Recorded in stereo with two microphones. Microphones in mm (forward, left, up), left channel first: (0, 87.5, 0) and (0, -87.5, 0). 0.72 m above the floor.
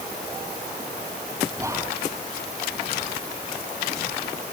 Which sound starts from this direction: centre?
Whispering, at 1.6 s.